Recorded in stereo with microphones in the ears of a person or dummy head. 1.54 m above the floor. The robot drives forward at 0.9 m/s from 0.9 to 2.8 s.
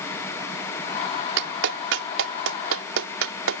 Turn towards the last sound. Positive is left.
turn(degrees=-80)